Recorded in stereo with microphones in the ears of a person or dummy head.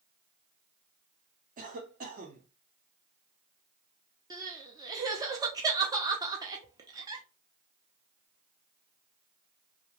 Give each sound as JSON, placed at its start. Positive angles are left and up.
{"t": 1.6, "sound": "a cough", "side_deg": -40, "distance_m": 0.9}
{"t": 4.3, "sound": "crying", "side_deg": -20, "distance_m": 0.5}